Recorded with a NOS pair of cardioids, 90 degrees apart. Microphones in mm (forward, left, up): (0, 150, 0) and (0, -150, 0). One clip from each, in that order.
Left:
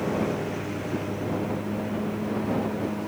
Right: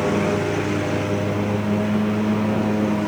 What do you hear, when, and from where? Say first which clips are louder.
0.0 s a lawn mower: right 7 dB; 70° right